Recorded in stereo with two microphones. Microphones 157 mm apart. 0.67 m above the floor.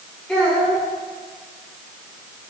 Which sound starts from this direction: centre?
A child speaking, at 0.3 s.